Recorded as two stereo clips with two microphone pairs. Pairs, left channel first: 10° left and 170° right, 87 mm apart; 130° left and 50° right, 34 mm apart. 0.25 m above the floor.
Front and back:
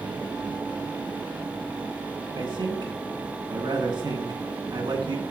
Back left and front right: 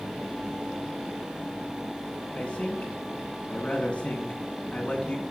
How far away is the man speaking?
About 3 m.